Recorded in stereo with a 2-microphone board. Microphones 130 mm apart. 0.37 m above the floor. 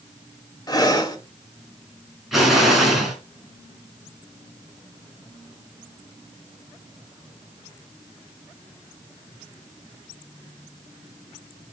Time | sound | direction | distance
0.7 | breathing | 30° left (ahead or behind) | 1.4 m
2.3 | an explosion | centre (ahead or behind) | 3 m